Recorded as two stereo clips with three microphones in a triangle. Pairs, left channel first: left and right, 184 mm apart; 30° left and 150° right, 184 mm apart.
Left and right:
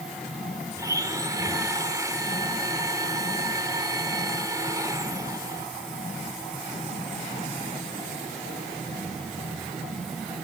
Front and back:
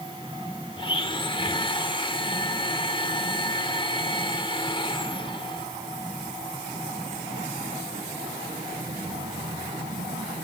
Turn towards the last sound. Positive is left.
turn(degrees=-25)